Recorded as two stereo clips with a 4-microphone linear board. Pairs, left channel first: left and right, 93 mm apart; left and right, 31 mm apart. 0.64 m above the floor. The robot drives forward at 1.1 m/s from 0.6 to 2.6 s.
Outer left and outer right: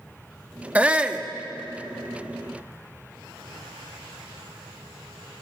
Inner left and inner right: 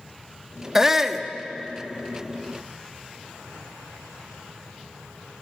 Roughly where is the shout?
Centre.